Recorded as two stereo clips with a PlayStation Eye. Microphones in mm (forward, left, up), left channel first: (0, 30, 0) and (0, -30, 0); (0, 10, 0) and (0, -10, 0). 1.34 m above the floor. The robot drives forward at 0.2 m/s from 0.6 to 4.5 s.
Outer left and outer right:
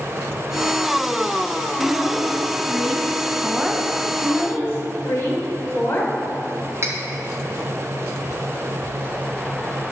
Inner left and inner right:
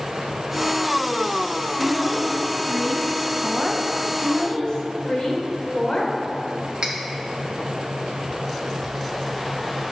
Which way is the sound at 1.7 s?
5° right (ahead or behind).